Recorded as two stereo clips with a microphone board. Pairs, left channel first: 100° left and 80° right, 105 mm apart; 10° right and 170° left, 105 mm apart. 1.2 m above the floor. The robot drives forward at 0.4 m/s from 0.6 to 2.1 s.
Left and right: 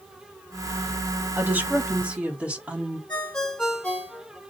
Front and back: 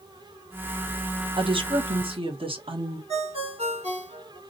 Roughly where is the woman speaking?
Behind right.